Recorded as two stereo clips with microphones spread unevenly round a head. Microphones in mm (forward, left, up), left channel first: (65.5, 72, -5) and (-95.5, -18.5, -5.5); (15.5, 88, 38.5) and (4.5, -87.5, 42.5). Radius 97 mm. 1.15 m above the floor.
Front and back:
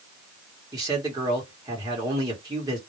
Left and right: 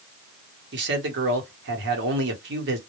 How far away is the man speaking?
About 1.1 m.